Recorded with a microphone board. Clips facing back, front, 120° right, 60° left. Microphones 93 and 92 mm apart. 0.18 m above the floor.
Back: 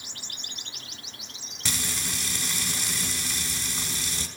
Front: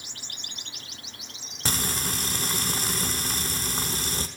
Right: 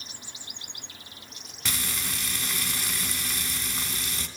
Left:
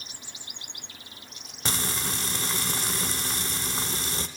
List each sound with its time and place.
1.6 s frying: 15° left, 0.6 m